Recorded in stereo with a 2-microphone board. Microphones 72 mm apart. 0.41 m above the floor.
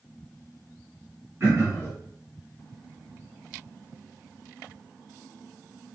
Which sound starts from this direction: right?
Throat clearing, at 1.4 s.